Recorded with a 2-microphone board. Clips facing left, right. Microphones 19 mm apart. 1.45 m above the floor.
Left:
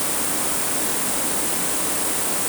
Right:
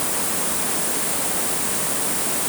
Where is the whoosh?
I don't hear a whoosh.